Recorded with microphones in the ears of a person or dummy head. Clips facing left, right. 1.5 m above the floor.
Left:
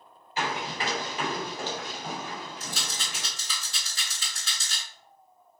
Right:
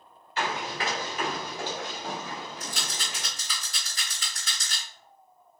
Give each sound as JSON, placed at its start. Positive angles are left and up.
{"t": 0.4, "sound": "running footsteps", "side_deg": 15, "distance_m": 1.7}
{"t": 2.6, "sound": "a rattle", "side_deg": -25, "distance_m": 2.0}